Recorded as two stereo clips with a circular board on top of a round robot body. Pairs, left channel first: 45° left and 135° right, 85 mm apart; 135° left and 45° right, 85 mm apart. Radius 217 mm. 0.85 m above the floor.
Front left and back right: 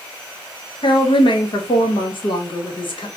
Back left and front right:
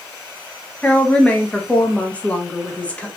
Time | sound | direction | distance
0.8 | a woman speaking | 60° left | 0.9 m